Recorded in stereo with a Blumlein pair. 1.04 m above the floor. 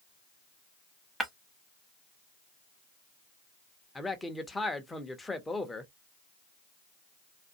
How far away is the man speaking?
About 0.6 m.